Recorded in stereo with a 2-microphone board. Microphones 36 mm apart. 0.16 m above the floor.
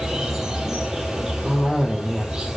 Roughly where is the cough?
Centre.